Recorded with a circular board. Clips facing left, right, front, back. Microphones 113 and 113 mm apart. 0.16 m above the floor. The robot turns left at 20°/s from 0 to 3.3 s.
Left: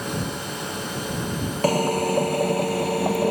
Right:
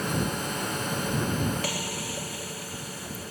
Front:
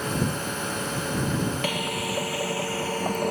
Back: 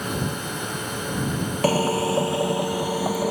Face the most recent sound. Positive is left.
turn(degrees=95)